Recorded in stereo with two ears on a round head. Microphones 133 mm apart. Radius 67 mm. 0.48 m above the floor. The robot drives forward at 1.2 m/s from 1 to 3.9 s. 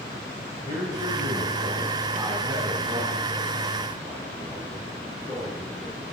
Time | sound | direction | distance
0.7 | a man speaking | 35° right (ahead or behind) | 2.5 m